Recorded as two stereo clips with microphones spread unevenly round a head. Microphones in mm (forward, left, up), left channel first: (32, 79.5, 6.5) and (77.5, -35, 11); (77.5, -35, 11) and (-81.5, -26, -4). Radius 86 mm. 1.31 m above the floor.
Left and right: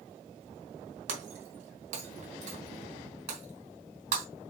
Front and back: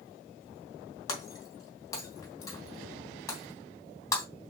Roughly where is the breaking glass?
Right.